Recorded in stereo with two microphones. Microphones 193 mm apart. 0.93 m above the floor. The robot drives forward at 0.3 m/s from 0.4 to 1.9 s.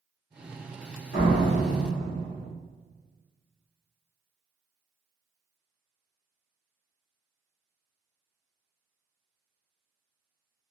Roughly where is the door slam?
Left.